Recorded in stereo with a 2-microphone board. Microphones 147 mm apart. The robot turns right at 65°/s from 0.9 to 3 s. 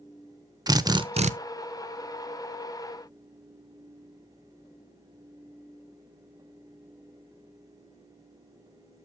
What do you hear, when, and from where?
0.7 s a drill: 25° right (ahead or behind), 0.5 m; by 1.3 s 55° right (ahead or behind), 0.5 m